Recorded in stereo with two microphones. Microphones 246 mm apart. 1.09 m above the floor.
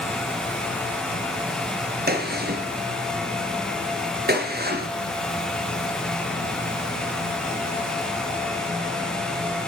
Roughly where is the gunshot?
Right.